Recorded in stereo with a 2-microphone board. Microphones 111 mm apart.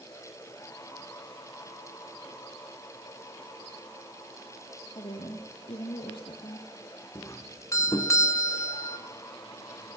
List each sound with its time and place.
5.0 s a woman speaking: 55° left (ahead or behind), 4 m
7.2 s a doorbell: 30° left (ahead or behind), 2.0 m